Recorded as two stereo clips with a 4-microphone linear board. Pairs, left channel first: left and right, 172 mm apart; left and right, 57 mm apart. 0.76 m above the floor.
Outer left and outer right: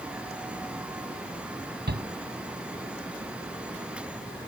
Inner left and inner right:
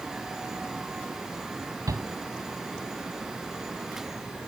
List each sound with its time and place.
1.9 s a shout: 75° right (ahead or behind)